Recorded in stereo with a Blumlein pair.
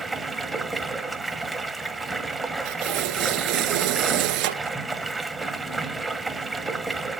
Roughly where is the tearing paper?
Ahead right.